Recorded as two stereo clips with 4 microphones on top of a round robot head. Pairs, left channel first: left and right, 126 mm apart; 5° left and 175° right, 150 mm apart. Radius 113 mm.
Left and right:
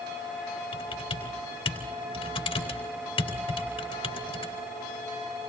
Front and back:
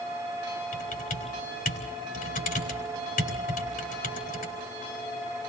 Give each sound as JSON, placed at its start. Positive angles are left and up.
{"t": 0.7, "sound": "typing on a keyboard", "azimuth_deg": 40, "distance_m": 4.5}